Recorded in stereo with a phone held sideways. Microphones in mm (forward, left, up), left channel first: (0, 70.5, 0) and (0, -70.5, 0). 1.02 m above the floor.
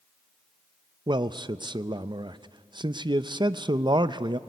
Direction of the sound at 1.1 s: 30° right (ahead or behind).